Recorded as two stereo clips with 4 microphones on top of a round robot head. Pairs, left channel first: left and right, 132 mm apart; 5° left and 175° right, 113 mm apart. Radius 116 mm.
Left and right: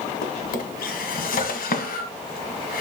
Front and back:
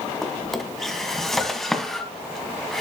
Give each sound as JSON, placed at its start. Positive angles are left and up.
{"t": 0.2, "sound": "a drawer", "azimuth_deg": 90, "distance_m": 1.5}